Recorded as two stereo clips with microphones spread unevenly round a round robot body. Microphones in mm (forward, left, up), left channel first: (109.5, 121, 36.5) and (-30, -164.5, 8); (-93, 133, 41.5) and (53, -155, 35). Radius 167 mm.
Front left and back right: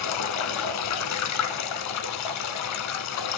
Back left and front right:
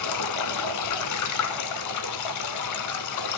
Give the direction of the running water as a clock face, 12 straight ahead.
9 o'clock.